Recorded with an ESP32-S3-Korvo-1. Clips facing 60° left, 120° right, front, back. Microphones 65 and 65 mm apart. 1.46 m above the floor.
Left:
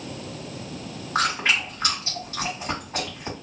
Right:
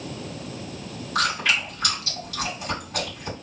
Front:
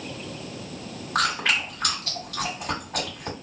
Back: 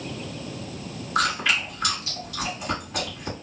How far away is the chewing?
About 1.8 m.